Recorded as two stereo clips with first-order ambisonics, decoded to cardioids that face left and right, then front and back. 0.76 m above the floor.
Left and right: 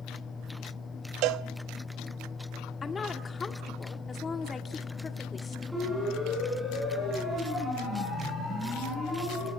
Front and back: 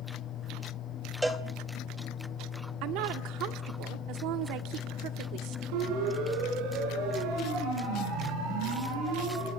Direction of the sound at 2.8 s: 160° left.